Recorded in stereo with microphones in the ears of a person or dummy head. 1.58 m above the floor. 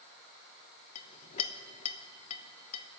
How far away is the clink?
About 1.0 m.